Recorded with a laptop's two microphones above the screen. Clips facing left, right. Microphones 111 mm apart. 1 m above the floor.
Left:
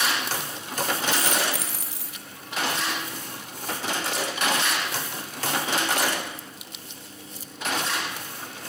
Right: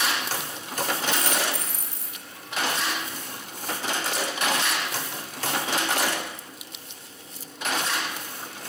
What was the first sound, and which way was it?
A dropped coin, 80° left.